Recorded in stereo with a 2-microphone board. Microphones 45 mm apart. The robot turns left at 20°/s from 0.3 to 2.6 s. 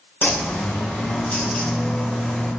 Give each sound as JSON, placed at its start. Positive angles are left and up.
{"t": 0.2, "sound": "a bird", "azimuth_deg": 60, "distance_m": 1.3}